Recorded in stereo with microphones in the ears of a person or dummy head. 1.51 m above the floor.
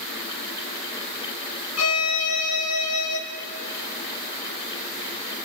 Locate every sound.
1.8 s a violin: 85° left, 2 m